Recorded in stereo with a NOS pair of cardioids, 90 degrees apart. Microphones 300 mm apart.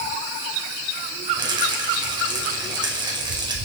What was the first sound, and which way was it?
A rattle, 15° right.